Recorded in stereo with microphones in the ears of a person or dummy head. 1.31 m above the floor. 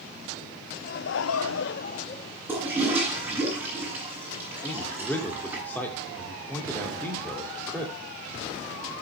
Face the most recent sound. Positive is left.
turn(degrees=10)  # may be behind; listen again after turning